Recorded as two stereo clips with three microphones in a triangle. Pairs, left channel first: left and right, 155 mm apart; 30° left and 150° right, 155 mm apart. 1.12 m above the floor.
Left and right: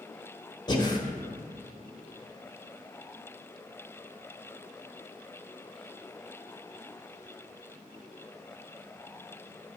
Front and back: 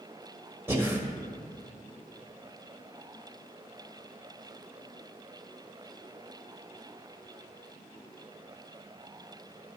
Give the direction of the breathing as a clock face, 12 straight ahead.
7 o'clock.